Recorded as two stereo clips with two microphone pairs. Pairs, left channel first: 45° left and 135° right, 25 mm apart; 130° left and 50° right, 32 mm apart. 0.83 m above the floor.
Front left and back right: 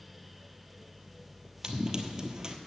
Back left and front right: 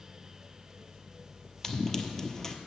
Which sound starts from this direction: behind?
Running footsteps, at 1.6 s.